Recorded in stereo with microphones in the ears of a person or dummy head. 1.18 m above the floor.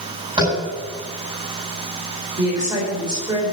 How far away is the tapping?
About 9 m.